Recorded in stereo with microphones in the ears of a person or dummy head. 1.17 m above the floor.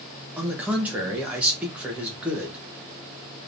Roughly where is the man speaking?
Centre.